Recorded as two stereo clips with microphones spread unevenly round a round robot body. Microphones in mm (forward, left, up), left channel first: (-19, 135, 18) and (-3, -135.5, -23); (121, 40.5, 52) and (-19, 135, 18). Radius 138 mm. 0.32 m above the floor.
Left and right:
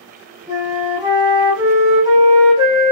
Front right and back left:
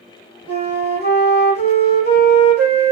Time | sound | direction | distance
0.5 | a flute | 160° right | 6.5 m